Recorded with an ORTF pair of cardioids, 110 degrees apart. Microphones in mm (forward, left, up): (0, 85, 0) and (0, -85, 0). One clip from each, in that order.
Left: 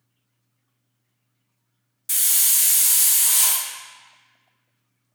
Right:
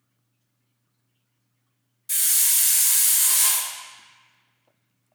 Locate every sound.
2.1 s a hiss: 25° left, 0.5 m